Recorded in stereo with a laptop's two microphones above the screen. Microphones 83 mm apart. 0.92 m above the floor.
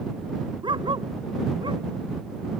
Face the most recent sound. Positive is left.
turn(degrees=-75)  # may be behind; listen again after turning